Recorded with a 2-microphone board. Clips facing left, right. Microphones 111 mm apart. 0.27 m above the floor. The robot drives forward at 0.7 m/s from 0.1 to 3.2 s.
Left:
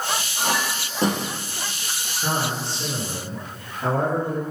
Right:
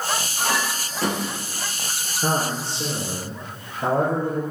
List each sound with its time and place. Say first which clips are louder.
0.4 s a clink: left 1 dB; 25° left (ahead or behind), 4.5 m; by 1.3 s 30° left (ahead or behind), 3.5 m
2.2 s a man speaking: right 2 dB; 30° right (ahead or behind), 3.5 m; by 4.4 s 25° right (ahead or behind), 4 m